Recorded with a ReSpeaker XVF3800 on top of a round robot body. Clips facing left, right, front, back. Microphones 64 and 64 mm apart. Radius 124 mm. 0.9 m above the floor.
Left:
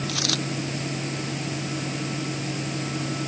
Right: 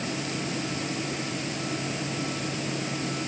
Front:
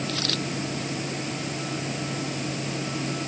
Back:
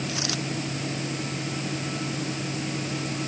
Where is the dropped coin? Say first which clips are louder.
Left 3 dB, front 1 dB; 105° left.